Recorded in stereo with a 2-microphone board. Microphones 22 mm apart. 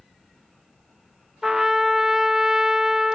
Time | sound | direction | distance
1.4 | a trumpet | 20° right (ahead or behind) | 0.6 m